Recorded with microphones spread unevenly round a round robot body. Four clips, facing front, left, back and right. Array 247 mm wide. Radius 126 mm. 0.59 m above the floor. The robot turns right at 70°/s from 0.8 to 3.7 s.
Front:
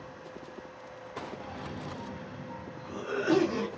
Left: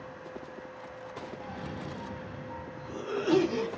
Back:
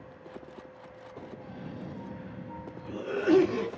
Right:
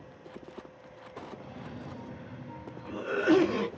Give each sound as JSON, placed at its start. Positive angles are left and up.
{"t": 1.4, "sound": "a cough", "azimuth_deg": 105, "distance_m": 1.1}